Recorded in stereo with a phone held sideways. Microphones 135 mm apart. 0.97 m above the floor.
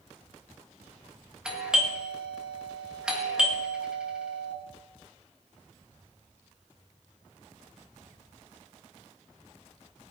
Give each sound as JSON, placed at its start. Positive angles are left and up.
{"t": 1.4, "sound": "a doorbell", "side_deg": -5, "distance_m": 1.8}